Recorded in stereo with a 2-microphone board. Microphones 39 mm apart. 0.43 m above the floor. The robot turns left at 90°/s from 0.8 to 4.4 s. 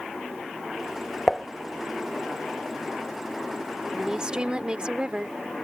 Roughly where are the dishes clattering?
Centre.